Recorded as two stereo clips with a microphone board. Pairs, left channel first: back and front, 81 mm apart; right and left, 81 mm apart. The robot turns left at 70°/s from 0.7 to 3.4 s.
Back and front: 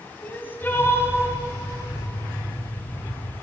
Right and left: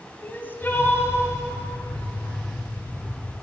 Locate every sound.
0.2 s crying: 135° right, 1.2 m; by 1.2 s 165° right, 1.2 m